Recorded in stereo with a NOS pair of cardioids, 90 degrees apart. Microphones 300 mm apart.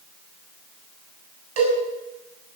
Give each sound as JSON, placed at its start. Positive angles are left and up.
{"t": 1.6, "sound": "a cowbell", "azimuth_deg": -60, "distance_m": 7.5}